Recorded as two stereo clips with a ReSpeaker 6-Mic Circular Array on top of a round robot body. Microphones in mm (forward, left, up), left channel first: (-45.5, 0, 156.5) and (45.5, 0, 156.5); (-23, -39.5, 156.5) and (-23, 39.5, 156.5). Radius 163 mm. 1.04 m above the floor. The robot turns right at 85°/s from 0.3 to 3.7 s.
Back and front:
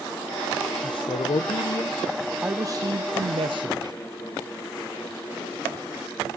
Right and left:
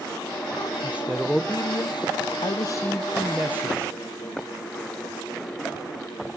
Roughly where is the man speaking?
Behind left.